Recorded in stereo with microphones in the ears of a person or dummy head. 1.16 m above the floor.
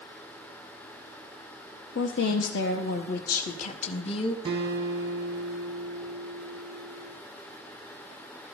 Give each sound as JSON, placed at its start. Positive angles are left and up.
{"t": 1.9, "sound": "a woman speaking", "side_deg": 85, "distance_m": 1.4}
{"t": 4.5, "sound": "a guitar", "side_deg": -30, "distance_m": 4.0}